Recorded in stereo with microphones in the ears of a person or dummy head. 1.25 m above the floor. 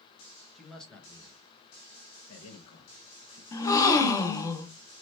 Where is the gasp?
20° left (ahead or behind), 0.6 m.